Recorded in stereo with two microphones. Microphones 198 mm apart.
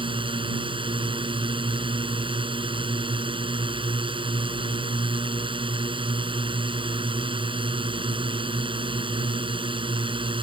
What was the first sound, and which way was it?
A drone, 25° right (ahead or behind).